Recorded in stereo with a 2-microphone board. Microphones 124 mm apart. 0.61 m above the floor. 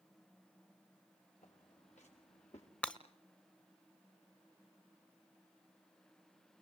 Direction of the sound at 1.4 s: 75° left (ahead or behind).